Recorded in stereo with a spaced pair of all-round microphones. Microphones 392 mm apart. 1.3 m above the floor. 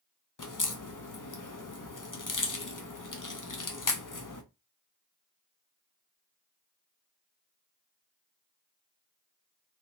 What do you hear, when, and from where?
0.4 s a crack: 50° left (ahead or behind), 0.7 m